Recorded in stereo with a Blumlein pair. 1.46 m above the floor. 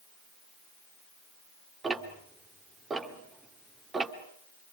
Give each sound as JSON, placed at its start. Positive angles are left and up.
{"t": 1.8, "sound": "ticking", "azimuth_deg": -15, "distance_m": 2.0}